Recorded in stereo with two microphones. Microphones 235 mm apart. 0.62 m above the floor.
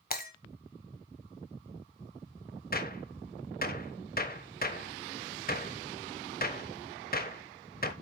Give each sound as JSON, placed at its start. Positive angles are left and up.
{"t": 0.1, "sound": "breaking glass", "side_deg": 35, "distance_m": 1.4}
{"t": 2.7, "sound": "a gunshot", "side_deg": 35, "distance_m": 1.1}